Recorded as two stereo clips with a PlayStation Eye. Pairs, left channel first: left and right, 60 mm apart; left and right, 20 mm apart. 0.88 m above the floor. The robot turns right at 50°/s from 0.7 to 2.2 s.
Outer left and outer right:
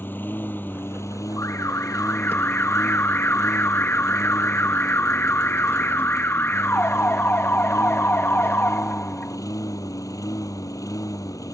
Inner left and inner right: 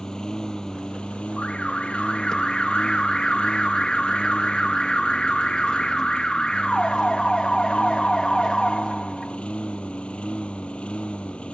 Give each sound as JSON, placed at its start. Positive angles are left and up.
{"t": 0.0, "sound": "a lawn mower", "azimuth_deg": 35}
{"t": 1.4, "sound": "an alarm", "azimuth_deg": 85}